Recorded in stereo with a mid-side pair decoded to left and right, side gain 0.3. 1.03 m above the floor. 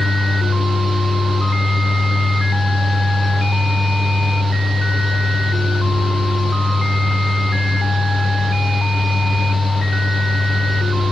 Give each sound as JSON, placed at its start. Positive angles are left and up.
{"t": 0.0, "sound": "a fan", "azimuth_deg": -25, "distance_m": 2.0}